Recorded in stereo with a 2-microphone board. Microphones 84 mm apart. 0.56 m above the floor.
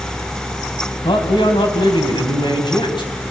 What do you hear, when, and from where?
1.0 s a man speaking: 70° left (ahead or behind), 4.5 m